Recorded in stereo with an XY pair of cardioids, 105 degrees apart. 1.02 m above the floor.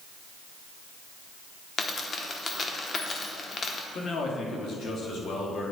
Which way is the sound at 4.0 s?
60° left.